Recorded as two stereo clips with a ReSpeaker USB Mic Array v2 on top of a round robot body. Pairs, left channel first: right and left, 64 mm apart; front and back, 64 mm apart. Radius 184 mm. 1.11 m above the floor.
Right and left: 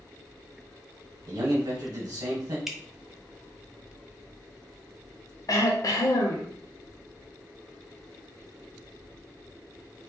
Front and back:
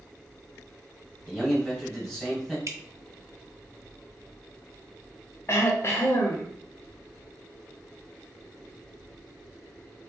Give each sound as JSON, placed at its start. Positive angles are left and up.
{"t": 1.3, "sound": "a man speaking", "azimuth_deg": 85, "distance_m": 1.6}
{"t": 2.7, "sound": "dripping", "azimuth_deg": 175, "distance_m": 0.8}
{"t": 5.5, "sound": "throat clearing", "azimuth_deg": -55, "distance_m": 0.6}